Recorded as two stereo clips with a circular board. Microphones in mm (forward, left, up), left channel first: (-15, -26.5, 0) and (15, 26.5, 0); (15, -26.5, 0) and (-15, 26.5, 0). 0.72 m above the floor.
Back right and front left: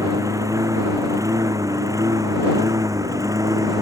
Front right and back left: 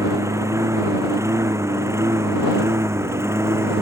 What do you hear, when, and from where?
0.0 s a lawn mower: 85° left; by 3.8 s 80° left